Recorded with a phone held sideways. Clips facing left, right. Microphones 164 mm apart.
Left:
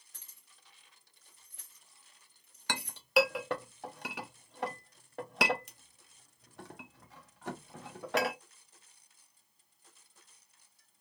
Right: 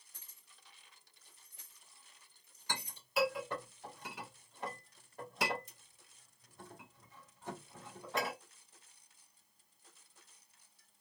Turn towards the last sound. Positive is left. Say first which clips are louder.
# left 8 dB
turn(degrees=75)  # may be behind; listen again after turning